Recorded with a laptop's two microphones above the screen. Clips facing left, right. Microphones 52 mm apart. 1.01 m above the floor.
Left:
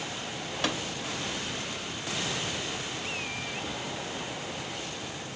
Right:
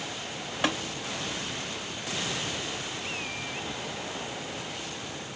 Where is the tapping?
20° right (ahead or behind), 3 m.